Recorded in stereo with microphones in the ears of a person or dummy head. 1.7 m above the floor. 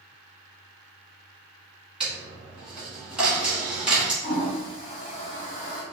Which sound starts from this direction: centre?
A dropped coin, at 2.0 s.